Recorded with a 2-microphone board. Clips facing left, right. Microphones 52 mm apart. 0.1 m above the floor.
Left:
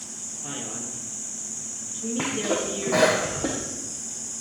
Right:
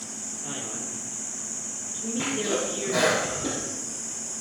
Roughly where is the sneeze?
Left.